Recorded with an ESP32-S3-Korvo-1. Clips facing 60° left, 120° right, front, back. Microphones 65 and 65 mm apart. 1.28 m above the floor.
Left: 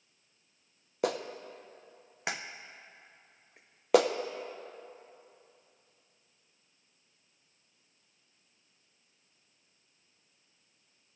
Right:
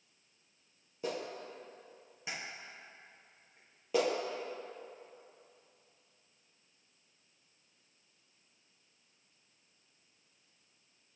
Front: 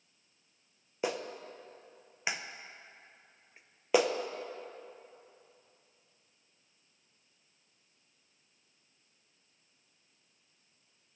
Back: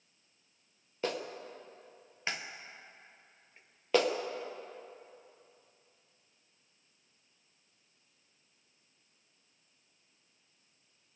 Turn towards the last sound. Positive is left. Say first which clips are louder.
# left 6 dB, front 1 dB
turn(degrees=75)